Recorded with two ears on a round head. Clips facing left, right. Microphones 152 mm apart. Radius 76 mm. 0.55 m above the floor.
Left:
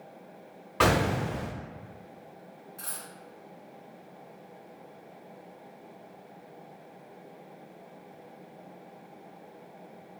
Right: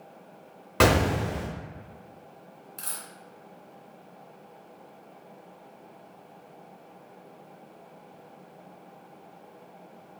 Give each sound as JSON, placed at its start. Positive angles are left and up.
{"t": 0.8, "sound": "an explosion", "side_deg": -55, "distance_m": 0.7}
{"t": 2.8, "sound": "a dropped coin", "side_deg": -35, "distance_m": 1.1}